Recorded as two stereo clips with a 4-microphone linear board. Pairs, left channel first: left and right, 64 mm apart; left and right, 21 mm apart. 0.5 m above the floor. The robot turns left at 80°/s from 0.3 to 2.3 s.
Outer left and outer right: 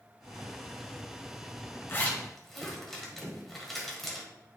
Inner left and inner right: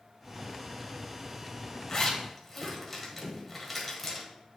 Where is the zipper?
35° left (ahead or behind), 1.7 m; by 4.3 s 5° left (ahead or behind), 1.7 m.